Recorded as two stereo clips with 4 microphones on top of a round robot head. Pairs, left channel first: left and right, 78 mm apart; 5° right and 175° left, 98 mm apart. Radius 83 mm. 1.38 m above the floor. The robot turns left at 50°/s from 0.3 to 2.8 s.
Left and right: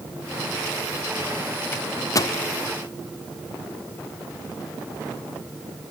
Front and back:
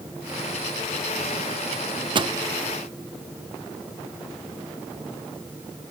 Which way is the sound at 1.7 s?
160° left.